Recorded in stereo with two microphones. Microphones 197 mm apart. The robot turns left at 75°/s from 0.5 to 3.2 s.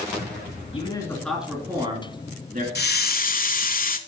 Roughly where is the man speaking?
Ahead left.